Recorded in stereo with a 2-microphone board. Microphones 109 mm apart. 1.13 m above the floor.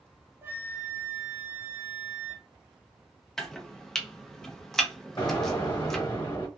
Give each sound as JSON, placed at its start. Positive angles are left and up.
{"t": 0.4, "sound": "a flute", "side_deg": -20, "distance_m": 0.5}
{"t": 3.4, "sound": "chopping", "side_deg": 5, "distance_m": 0.6}
{"t": 5.2, "sound": "an explosion", "side_deg": 40, "distance_m": 1.4}